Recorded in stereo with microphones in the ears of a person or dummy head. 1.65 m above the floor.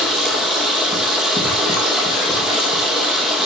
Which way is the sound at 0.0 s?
Centre (ahead or behind).